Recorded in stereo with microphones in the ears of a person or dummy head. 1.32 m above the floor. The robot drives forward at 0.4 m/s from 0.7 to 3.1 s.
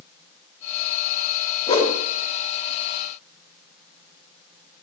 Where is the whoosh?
20° left (ahead or behind), 0.7 m.